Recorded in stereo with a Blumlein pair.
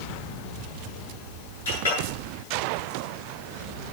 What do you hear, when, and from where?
1.6 s a clink: 70° left, 8.5 m